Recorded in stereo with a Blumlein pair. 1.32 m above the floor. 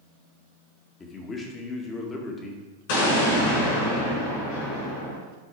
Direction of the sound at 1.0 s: 20° left.